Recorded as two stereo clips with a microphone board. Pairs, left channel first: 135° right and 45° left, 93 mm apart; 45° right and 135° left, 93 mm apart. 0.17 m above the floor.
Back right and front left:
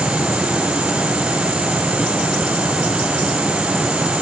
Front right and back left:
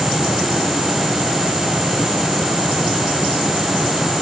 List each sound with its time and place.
Only background noise.